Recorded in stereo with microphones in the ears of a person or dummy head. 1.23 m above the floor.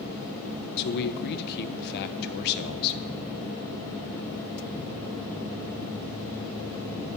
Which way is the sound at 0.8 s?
55° left (ahead or behind).